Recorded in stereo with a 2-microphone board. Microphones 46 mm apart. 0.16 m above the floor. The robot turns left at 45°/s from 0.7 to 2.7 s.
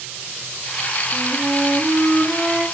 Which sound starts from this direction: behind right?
A flute, at 1.1 s.